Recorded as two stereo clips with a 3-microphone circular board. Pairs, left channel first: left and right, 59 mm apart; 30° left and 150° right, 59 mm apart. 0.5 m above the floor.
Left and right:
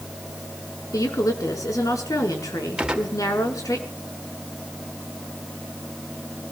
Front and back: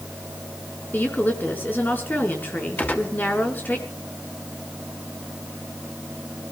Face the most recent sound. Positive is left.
turn(degrees=-20)